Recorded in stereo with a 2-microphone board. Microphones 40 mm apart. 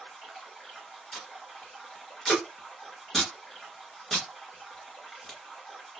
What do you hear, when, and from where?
0.0 s running water: 10° left (ahead or behind), 1.6 m
1.1 s tape being pulled: 10° left (ahead or behind), 1.1 m